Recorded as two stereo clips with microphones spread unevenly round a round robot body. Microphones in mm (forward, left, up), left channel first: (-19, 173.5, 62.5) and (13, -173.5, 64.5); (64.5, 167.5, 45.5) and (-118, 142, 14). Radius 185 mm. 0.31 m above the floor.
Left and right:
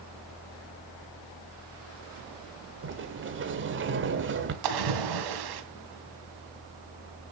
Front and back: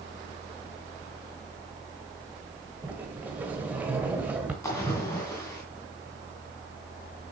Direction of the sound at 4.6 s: 75° right.